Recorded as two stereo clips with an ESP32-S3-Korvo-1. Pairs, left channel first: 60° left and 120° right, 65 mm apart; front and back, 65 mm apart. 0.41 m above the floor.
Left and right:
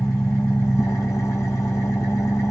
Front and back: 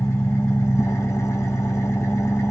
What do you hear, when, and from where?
0.0 s an engine running: 35° left, 1.4 m